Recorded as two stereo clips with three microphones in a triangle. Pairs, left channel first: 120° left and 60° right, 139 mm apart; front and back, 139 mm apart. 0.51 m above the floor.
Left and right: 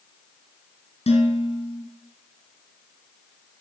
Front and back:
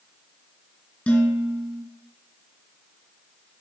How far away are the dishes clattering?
About 3 m.